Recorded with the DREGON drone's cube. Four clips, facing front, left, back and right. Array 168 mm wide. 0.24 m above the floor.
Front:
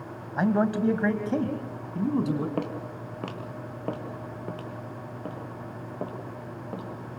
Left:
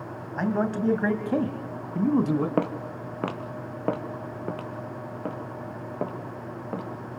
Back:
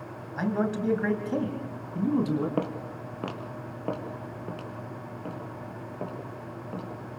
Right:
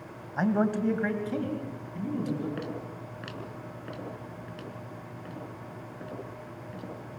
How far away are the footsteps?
About 2 m.